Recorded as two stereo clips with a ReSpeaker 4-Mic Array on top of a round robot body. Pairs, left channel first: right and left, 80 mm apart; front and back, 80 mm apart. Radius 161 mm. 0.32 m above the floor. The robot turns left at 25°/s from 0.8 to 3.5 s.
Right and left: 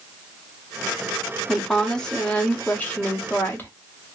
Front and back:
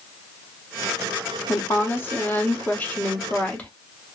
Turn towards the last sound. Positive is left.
turn(degrees=-55)